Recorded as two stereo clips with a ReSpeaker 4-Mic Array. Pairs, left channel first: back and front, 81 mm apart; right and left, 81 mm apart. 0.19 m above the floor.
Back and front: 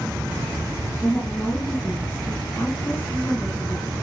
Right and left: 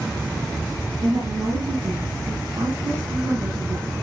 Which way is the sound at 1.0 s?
115° left.